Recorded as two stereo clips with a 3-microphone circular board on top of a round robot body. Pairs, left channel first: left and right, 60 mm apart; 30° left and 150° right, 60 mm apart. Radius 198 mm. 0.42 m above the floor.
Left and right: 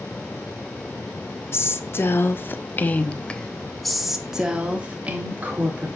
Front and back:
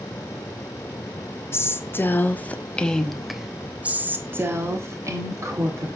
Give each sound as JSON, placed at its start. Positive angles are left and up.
{"t": 1.5, "sound": "a woman speaking", "azimuth_deg": 60, "distance_m": 1.6}